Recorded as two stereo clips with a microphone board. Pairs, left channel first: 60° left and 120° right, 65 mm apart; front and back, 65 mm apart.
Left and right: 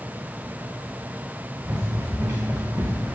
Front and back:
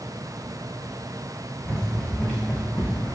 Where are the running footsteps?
65° right, 4 m.